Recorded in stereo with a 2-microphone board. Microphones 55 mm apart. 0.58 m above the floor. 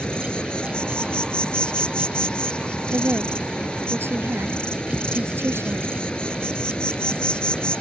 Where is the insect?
20° left (ahead or behind).